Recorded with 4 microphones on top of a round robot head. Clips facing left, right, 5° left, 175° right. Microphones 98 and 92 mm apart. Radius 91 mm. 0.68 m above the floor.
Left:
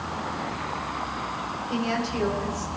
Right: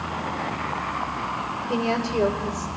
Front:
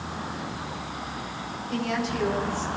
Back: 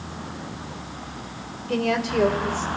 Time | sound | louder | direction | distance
1.7 | a woman speaking | right 3 dB, back 5 dB | 135° right | 3 m